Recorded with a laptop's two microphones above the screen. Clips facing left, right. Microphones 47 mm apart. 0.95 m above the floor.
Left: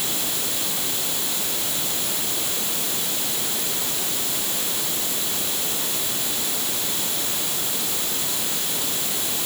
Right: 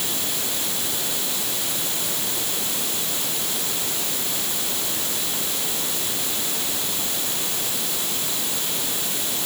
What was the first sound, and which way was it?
Only background noise.